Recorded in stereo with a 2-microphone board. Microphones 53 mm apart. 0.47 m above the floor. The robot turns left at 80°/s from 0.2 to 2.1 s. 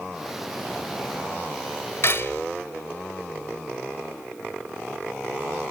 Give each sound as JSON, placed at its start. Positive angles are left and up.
{"t": 2.0, "sound": "cutlery clinking", "side_deg": 50, "distance_m": 1.2}